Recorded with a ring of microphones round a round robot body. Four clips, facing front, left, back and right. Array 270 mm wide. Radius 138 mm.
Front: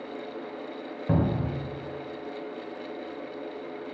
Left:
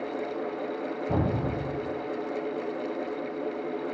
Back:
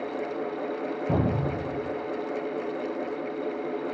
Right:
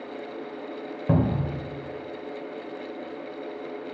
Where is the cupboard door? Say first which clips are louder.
Right 4 dB, front 1 dB; 75° right, 0.9 m.